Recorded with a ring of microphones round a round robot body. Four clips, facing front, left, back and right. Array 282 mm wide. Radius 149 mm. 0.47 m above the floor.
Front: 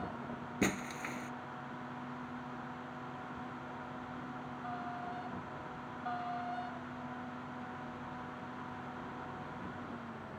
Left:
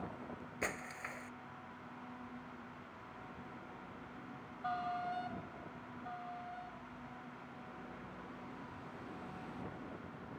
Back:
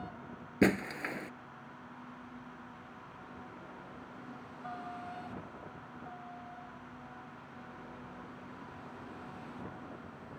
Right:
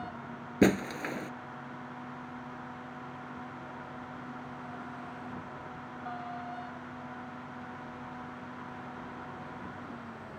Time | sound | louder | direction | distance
0.6 | breaking glass | right 18 dB, back 7 dB | 110° right | ?